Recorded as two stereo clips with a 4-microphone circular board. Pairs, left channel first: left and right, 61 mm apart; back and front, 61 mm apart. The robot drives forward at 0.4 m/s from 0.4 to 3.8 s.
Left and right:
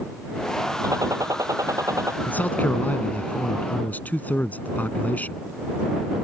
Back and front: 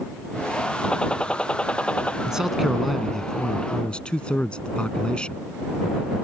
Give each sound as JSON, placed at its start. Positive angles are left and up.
{"t": 0.8, "sound": "a gunshot", "azimuth_deg": -105}
{"t": 2.3, "sound": "a man speaking", "azimuth_deg": 65}